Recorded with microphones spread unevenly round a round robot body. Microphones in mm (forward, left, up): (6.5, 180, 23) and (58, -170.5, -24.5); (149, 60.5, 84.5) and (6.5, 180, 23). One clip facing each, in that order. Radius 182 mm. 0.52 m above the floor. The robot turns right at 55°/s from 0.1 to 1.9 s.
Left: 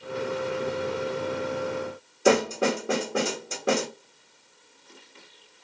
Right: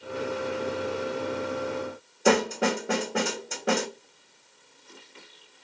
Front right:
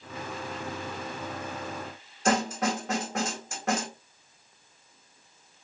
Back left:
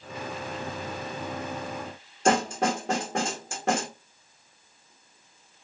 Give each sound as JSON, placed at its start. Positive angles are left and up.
{"t": 2.2, "sound": "a snare drum", "azimuth_deg": 180, "distance_m": 1.0}